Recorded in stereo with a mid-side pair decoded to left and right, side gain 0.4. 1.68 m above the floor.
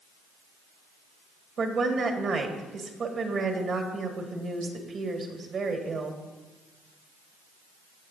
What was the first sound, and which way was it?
A woman speaking, 60° right.